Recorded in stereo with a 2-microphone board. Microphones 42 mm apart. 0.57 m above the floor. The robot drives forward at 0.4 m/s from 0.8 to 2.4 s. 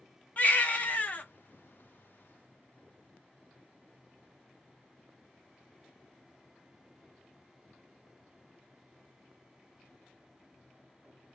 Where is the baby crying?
35° left (ahead or behind), 1.0 m; by 1.2 s 40° left (ahead or behind), 0.9 m.